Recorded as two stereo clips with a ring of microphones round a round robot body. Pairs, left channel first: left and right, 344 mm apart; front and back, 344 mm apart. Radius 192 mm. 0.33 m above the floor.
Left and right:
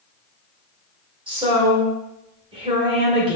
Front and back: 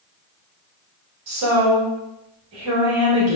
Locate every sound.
1.3 s a woman speaking: 160° right, 1.5 m